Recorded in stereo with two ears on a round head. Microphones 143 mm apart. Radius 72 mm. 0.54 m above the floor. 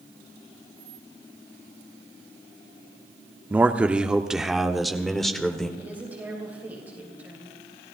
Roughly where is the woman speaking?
Centre.